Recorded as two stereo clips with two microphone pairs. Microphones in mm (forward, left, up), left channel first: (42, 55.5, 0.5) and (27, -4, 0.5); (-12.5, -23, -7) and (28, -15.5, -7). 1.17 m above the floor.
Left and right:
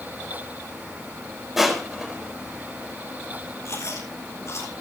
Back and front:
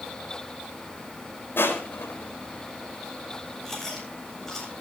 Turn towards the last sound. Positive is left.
turn(degrees=110)